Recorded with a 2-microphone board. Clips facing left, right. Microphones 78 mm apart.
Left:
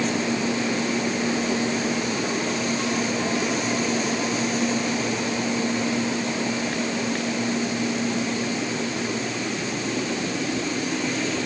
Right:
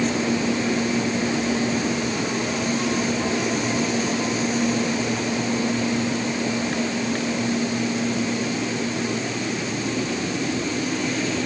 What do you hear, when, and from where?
Only background noise.